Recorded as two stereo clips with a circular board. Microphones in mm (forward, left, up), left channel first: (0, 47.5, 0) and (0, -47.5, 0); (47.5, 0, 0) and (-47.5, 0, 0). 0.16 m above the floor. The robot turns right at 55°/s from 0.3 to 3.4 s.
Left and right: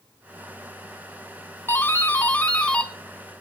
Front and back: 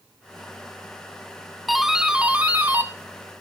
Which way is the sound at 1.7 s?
90° left.